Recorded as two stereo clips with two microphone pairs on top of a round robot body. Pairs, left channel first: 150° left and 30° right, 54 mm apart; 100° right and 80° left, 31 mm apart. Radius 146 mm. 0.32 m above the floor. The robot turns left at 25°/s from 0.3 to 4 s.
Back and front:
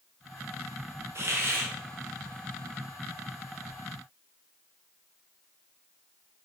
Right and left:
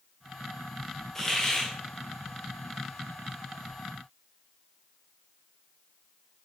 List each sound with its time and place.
1.1 s a hiss: 30° right, 1.7 m; by 1.7 s 45° right, 1.7 m